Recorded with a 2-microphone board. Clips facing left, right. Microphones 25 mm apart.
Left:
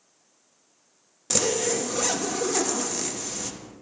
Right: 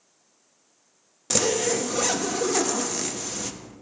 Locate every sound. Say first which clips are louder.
1.3 s a zipper: right 2 dB; 10° right (ahead or behind), 0.5 m